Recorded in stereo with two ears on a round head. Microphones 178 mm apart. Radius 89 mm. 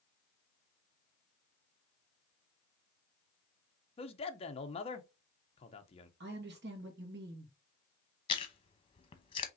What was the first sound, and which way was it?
A man speaking, 30° left (ahead or behind).